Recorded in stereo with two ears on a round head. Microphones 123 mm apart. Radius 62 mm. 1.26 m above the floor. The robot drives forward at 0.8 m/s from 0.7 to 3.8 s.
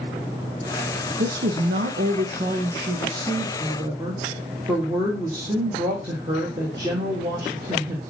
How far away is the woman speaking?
About 1.0 m.